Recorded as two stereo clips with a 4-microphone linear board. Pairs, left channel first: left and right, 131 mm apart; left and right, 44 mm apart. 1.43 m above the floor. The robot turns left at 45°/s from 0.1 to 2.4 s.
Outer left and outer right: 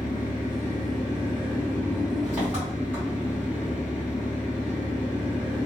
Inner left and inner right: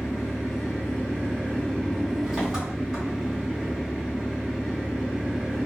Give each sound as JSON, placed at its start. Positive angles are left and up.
{"t": 0.0, "sound": "an engine running", "azimuth_deg": 95, "distance_m": 1.7}